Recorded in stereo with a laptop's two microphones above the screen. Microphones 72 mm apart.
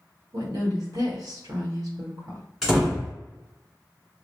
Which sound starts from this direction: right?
A woman speaking, at 0.3 s.